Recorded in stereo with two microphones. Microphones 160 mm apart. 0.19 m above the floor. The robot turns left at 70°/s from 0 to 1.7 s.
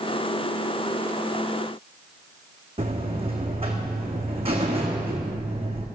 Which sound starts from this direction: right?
A buzzer, at 2.8 s.